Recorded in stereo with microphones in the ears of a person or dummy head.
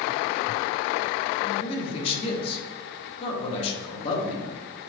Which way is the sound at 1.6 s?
30° left (ahead or behind).